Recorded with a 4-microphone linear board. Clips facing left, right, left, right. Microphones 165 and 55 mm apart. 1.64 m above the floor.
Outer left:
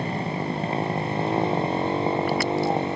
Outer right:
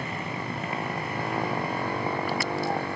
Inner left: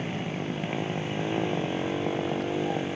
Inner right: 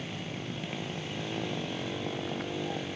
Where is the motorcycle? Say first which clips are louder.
Outer left 6 dB, inner left 7 dB; 30° left (ahead or behind); by 3.0 s 20° left (ahead or behind).